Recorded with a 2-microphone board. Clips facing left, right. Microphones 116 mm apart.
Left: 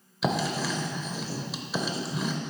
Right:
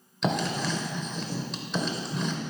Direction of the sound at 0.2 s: 5° left (ahead or behind).